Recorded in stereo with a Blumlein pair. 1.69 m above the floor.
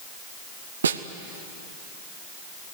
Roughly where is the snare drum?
Right.